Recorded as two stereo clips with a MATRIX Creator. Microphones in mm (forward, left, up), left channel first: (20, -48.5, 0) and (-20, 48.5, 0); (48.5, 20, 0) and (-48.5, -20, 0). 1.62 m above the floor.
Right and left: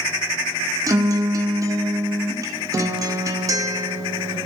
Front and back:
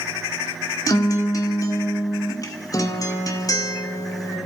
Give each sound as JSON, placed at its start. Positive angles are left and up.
{"t": 0.9, "sound": "a guitar", "azimuth_deg": 65, "distance_m": 1.8}